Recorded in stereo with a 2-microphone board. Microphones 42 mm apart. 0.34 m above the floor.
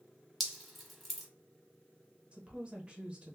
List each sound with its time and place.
0.4 s dripping: centre (ahead or behind), 0.9 m
2.3 s a woman speaking: 30° right (ahead or behind), 0.9 m